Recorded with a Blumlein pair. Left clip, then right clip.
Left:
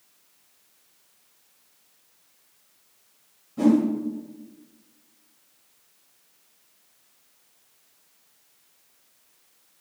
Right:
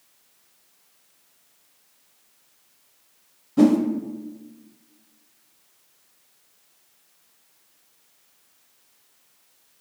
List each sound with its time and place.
3.6 s a whoosh: 55° right, 0.8 m